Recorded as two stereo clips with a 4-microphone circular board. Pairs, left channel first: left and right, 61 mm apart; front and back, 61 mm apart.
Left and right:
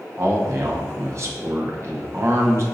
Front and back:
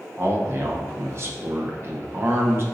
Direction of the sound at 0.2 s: 135° right.